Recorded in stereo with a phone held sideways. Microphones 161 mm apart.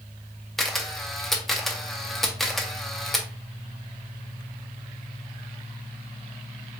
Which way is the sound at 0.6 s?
Centre (ahead or behind).